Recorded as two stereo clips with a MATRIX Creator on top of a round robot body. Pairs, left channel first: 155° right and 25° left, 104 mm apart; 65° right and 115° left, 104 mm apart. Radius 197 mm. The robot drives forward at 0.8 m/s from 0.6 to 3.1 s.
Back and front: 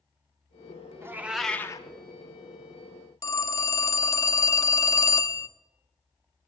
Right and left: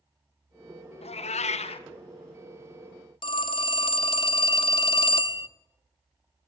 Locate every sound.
1.0 s a cat meowing: 45° right, 0.8 m; by 1.9 s 105° right, 0.5 m
3.2 s a phone ringing: 100° right, 0.7 m